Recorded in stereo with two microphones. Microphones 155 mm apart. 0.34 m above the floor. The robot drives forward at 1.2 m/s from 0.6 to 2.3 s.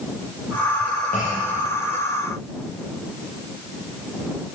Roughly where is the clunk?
Left.